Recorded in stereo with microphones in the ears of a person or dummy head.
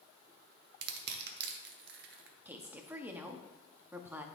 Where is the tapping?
I don't hear tapping.